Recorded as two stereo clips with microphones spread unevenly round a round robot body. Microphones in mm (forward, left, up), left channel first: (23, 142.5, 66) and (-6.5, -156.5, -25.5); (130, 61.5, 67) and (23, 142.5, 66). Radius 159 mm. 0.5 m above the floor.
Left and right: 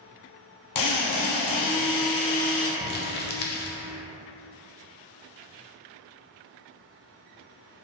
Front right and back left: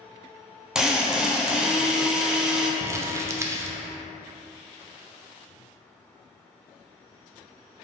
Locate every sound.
0.8 s a drill: 60° left, 0.9 m
2.8 s crumpling: 130° left, 0.6 m